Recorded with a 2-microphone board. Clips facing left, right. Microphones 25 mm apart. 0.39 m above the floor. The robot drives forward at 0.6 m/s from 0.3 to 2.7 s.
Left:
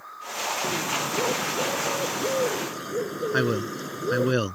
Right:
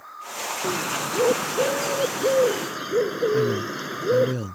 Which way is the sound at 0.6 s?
55° right (ahead or behind).